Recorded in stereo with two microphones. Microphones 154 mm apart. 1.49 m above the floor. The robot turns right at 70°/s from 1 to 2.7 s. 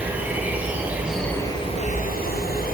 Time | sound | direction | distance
0.0 | an insect | 10° right | 3.5 m